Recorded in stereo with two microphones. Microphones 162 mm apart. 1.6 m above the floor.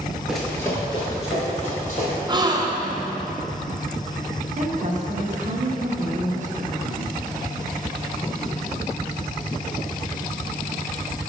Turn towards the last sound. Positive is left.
turn(degrees=-50)  # may be behind; listen again after turning